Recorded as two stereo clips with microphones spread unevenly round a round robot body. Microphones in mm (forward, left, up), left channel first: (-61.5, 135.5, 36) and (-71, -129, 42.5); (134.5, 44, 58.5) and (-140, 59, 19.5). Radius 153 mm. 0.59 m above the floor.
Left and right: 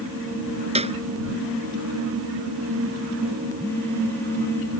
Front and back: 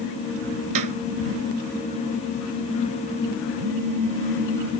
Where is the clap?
160° right.